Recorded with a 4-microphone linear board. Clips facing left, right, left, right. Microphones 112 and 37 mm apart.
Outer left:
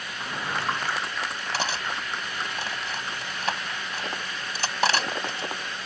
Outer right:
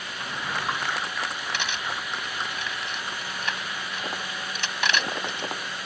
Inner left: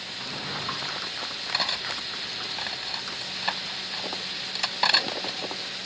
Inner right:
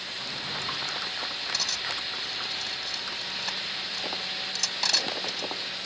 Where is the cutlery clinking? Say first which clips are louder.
Outer left 5 dB, inner left 5 dB; 35° left (ahead or behind).